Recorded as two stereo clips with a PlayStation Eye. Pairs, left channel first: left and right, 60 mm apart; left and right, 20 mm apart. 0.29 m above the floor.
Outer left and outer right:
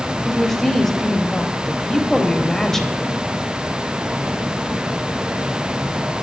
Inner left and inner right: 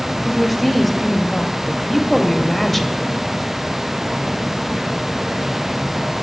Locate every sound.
0.2 s a woman speaking: 5° left (ahead or behind), 1.0 m